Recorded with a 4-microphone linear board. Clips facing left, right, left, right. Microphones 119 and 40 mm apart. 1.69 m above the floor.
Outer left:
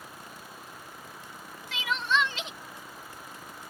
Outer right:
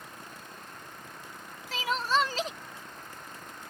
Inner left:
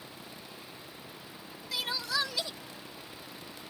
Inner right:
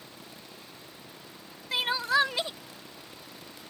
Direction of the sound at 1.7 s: 40° right (ahead or behind).